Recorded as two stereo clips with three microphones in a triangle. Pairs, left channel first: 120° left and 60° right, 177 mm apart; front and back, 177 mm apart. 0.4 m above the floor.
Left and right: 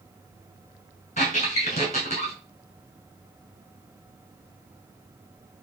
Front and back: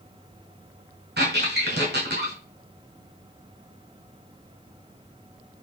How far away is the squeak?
About 1.8 m.